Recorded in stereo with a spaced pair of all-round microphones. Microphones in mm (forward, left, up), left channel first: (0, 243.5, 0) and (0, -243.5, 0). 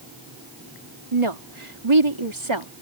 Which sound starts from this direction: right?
A woman speaking, at 1.1 s.